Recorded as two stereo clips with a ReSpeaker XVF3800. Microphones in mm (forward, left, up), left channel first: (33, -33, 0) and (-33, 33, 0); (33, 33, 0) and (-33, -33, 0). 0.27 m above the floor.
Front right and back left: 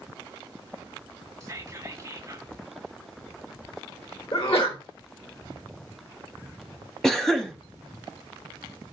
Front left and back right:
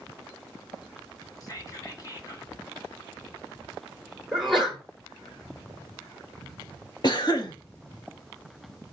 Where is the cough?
40° left, 1.4 m.